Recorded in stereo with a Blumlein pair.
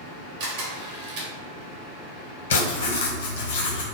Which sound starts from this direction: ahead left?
Writing, at 2.5 s.